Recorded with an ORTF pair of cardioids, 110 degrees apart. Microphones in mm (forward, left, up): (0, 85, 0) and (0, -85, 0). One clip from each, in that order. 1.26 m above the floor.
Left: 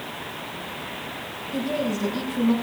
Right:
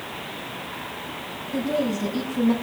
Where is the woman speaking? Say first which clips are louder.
Right 2 dB; 10° left, 5.5 m.